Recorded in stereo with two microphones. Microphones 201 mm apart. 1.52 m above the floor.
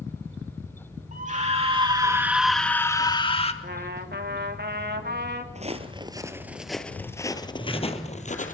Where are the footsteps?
35° right (ahead or behind), 2 m; by 8.6 s 40° left (ahead or behind), 3 m.